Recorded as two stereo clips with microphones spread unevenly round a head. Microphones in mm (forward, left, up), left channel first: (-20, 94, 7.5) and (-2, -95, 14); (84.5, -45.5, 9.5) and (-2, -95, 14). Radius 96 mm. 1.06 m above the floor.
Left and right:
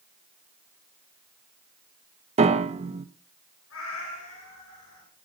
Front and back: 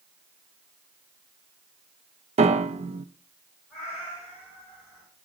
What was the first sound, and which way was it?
A piano, 145° right.